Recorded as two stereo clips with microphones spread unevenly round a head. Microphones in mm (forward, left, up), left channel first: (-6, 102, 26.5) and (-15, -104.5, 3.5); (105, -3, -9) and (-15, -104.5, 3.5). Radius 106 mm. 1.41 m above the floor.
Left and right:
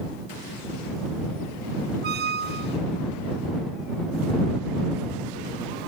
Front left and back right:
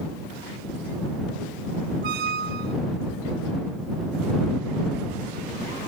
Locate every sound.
2.0 s a squeak: 135° right